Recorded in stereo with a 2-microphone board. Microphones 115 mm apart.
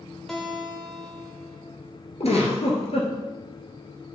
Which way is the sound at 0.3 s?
5° left (ahead or behind).